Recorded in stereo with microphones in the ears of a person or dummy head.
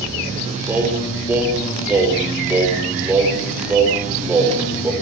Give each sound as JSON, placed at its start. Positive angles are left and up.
{"t": 0.7, "sound": "singing", "side_deg": -10, "distance_m": 5.5}